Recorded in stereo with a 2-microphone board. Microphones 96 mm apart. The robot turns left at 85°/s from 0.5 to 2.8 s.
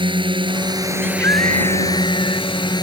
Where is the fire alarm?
I don't hear a fire alarm.